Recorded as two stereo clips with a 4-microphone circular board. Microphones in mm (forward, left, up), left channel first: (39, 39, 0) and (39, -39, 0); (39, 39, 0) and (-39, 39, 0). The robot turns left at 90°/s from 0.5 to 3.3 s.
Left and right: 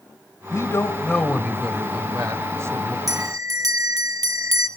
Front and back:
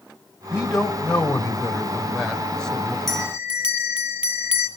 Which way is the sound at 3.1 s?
85° right.